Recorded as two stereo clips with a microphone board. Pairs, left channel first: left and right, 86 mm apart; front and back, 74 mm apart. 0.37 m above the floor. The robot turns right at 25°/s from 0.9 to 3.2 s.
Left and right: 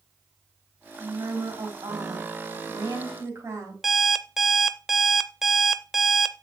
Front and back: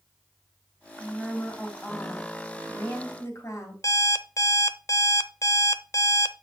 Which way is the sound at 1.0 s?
95° right.